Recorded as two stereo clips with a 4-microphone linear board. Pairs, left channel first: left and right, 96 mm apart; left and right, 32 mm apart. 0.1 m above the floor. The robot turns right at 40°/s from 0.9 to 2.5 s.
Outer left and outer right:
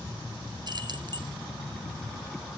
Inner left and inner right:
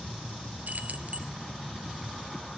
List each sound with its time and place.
0.7 s keys jangling: 50° right (ahead or behind), 1.3 m; by 1.3 s 45° right (ahead or behind), 1.3 m